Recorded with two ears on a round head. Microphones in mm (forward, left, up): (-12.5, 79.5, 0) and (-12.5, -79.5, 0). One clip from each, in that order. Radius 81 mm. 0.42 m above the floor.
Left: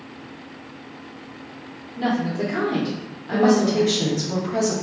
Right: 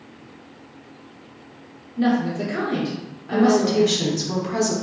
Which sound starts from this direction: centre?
A woman speaking, at 2.0 s.